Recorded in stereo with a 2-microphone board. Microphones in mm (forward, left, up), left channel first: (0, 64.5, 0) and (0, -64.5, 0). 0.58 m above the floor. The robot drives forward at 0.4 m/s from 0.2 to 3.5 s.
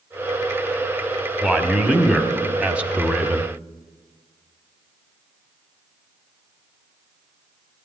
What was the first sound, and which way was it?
A man speaking, 5° right (ahead or behind).